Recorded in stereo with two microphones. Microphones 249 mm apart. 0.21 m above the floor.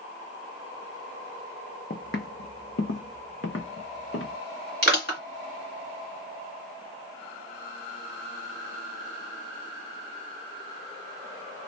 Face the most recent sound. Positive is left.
turn(degrees=45)  # may be behind; listen again after turning